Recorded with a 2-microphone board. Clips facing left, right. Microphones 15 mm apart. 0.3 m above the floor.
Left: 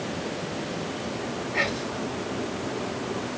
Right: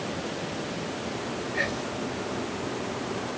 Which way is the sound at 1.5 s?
60° left (ahead or behind).